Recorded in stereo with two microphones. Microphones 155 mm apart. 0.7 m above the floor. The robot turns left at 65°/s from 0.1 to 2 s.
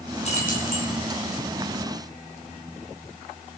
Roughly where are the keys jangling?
Behind left.